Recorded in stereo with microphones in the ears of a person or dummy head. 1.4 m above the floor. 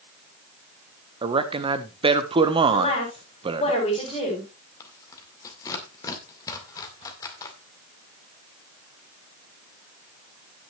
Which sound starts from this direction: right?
A man speaking, at 1.2 s.